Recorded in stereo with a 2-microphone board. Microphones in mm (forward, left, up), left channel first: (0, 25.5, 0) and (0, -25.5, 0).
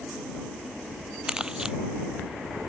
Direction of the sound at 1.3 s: 15° right (ahead or behind).